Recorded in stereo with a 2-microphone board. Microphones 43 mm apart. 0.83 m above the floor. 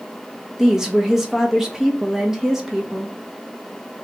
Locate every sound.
0.6 s a woman speaking: 10° right (ahead or behind), 1.0 m